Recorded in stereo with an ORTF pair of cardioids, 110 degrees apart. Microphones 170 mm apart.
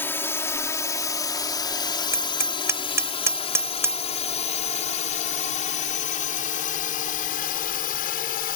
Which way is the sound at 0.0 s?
15° left.